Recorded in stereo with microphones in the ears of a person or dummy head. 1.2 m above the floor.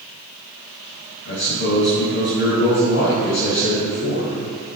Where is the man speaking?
70° left (ahead or behind), 6 m.